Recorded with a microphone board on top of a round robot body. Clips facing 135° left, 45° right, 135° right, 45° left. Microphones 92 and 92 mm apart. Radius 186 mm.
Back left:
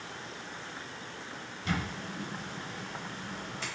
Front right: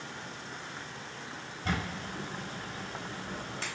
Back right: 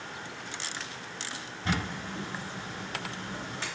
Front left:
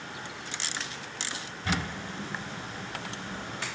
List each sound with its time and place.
1.6 s a camera shutter: 80° right, 3 m